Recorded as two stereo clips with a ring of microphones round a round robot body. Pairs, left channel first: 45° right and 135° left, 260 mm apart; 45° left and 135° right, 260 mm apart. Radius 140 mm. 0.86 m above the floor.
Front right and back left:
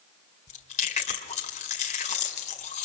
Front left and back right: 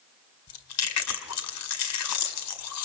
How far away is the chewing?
About 1.8 m.